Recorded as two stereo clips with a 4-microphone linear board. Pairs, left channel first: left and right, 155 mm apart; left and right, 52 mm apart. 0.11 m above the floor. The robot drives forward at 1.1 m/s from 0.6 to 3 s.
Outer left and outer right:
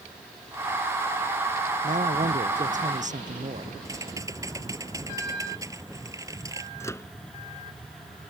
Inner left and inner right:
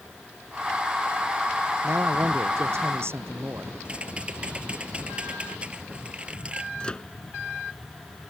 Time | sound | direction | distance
1.8 | a man speaking | 60° right (ahead or behind) | ?
3.9 | typing on a keyboard | 20° right (ahead or behind) | ?
6.8 | a microwave | 20° left (ahead or behind) | ?